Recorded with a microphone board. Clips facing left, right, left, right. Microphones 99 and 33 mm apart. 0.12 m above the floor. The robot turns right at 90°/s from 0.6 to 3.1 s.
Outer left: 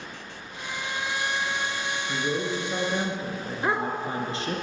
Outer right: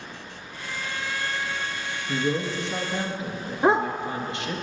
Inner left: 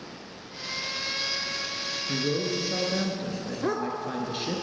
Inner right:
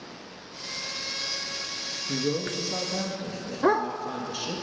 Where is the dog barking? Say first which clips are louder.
Outer right 6 dB, inner right 6 dB; 30° right (ahead or behind), 0.6 m.